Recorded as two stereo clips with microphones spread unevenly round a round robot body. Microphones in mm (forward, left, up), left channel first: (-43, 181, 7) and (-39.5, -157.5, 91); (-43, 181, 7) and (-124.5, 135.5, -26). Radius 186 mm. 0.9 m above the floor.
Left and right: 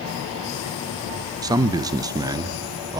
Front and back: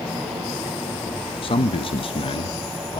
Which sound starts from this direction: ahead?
A man speaking, at 1.4 s.